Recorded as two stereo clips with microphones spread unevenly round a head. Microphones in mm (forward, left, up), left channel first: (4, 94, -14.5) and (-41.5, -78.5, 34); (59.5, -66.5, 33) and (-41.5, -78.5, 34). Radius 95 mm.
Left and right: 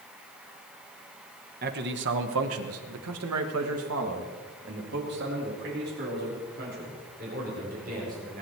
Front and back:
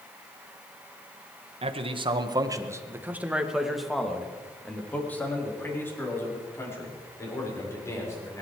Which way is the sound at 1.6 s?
145° right.